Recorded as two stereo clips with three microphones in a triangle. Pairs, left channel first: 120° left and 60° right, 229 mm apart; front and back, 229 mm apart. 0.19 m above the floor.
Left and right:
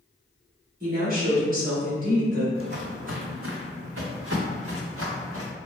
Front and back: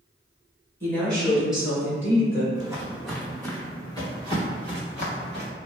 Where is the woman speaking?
75° right, 1.9 m; by 2.5 s 105° right, 2.5 m.